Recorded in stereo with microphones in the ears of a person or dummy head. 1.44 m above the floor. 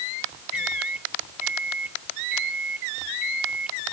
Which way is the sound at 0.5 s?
5° right (ahead or behind).